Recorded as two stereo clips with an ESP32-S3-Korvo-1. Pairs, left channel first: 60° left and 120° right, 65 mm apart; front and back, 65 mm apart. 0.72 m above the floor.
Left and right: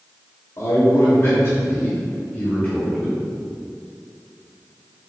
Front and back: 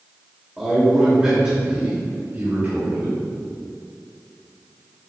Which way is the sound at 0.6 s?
95° left.